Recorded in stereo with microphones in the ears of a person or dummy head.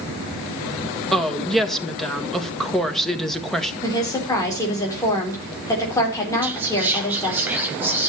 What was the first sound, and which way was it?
A woman speaking, centre (ahead or behind).